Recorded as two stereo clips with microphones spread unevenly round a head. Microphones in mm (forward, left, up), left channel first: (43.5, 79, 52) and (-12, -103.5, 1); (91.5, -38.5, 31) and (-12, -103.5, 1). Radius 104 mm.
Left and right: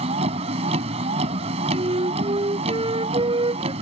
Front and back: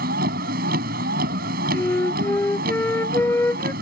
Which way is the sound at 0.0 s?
175° right.